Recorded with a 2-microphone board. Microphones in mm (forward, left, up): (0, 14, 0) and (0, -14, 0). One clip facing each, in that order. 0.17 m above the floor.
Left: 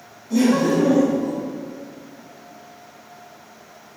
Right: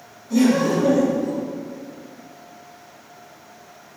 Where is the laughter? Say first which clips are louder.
Even; centre (ahead or behind), 1.6 m.